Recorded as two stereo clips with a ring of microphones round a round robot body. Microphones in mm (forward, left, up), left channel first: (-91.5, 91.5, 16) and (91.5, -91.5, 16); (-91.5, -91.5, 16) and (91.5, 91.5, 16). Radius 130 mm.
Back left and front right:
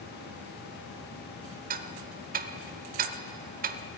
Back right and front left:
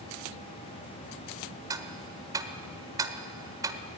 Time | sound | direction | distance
1.7 | ticking | 20° right | 1.2 m